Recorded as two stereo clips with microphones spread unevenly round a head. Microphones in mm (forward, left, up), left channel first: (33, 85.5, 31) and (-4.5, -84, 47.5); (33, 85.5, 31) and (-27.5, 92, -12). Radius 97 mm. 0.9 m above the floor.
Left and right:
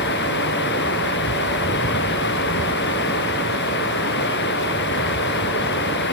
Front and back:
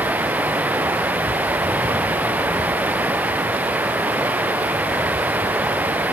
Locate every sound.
0.0 s running water: 110° left